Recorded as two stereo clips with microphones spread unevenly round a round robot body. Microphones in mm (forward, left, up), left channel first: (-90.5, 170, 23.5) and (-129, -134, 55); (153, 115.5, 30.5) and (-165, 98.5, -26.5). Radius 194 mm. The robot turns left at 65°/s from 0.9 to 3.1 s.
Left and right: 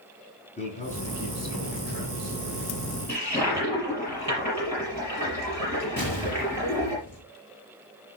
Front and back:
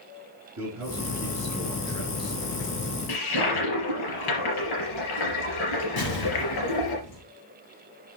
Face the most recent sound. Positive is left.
turn(degrees=5)